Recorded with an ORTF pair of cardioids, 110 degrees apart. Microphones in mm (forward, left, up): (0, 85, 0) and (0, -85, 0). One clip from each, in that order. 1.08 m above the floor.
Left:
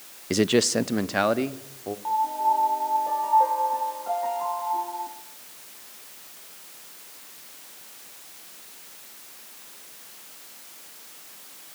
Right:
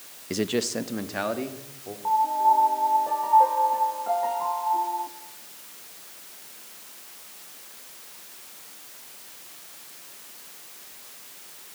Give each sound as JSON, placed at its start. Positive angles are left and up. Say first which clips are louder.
{"t": 0.3, "sound": "a man speaking", "louder": "left 5 dB", "azimuth_deg": 25, "distance_m": 0.5}
{"t": 2.0, "sound": "a piano", "louder": "right 3 dB", "azimuth_deg": -10, "distance_m": 1.4}